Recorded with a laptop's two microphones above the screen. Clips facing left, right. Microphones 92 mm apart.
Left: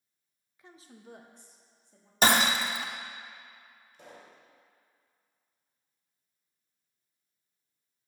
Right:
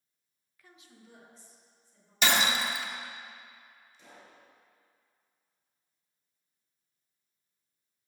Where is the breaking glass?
40° left (ahead or behind), 0.7 m.